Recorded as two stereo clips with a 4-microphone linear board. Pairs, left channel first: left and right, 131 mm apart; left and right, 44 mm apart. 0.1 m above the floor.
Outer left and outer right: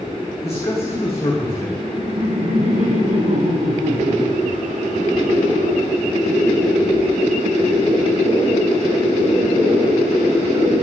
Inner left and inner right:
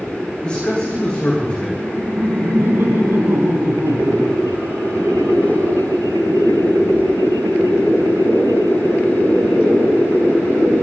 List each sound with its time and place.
0.4 s a man speaking: 20° left (ahead or behind), 7.5 m
1.8 s laughter: 65° right (ahead or behind), 4 m